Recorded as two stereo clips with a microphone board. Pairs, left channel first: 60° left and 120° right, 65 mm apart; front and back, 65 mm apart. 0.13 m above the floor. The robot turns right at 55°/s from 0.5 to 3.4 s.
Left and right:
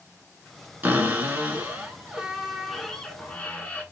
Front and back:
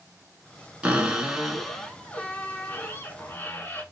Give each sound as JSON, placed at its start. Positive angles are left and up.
{"t": 0.8, "sound": "a cupboard door", "azimuth_deg": -130, "distance_m": 0.9}